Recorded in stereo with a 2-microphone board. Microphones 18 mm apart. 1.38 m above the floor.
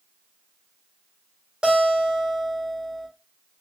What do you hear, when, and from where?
1.6 s a guitar: 55° right (ahead or behind), 1.8 m